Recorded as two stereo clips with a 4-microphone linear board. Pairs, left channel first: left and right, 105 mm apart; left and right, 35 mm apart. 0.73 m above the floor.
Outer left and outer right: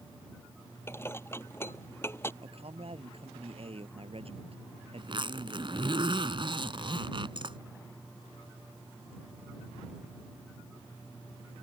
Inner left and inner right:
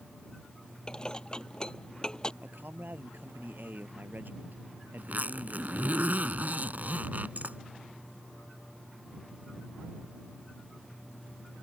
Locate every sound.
0.9 s dishes clattering: 20° left (ahead or behind)
2.4 s a man speaking: 65° right (ahead or behind)
5.0 s a zipper: 50° right (ahead or behind)